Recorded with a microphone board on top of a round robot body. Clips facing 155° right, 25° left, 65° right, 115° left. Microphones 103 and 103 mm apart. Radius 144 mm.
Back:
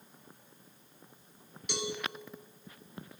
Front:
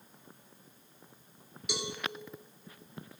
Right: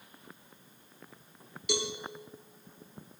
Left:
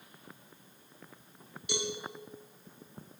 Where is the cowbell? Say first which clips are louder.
Back 1 dB, right 2 dB; 65° right, 2.5 m.